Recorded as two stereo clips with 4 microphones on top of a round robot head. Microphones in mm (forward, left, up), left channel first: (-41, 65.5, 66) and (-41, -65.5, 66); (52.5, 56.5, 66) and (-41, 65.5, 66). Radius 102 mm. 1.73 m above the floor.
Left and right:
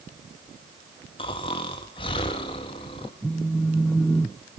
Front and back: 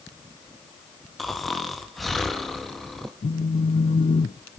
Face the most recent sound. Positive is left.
turn(degrees=0)